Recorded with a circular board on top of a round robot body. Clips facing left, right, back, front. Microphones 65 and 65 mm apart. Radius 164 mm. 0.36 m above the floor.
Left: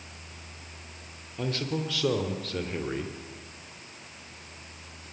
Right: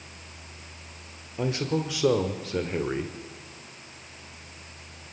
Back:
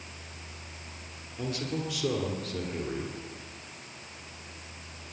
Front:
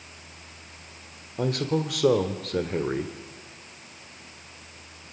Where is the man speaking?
20° right, 1.8 m.